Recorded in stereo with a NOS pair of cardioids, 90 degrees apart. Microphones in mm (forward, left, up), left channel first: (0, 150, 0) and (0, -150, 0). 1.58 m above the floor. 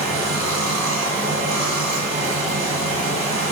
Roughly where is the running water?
Ahead right.